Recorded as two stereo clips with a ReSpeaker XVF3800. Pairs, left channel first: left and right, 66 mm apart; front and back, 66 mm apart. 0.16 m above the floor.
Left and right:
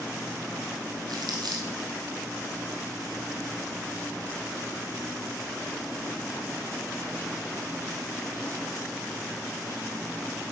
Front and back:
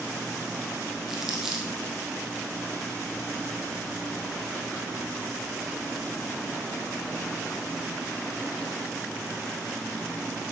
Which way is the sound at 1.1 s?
95° right.